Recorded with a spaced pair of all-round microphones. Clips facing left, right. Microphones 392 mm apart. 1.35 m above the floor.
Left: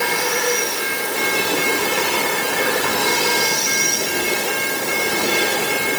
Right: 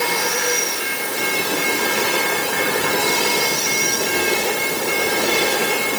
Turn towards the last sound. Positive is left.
No sound to turn to.